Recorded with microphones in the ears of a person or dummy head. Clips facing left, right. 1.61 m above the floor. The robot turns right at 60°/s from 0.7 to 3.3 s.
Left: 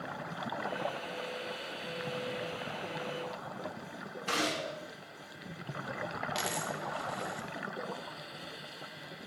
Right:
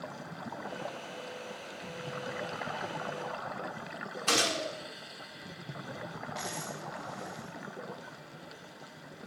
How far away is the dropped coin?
About 1.4 m.